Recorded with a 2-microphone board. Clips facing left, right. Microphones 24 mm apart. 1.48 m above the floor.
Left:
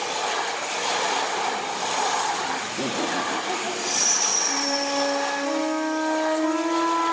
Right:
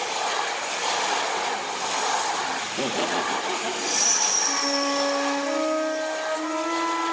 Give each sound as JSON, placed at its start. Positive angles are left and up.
{"t": 2.6, "sound": "laughter", "side_deg": -60, "distance_m": 1.2}
{"t": 4.5, "sound": "a flute", "side_deg": -45, "distance_m": 7.0}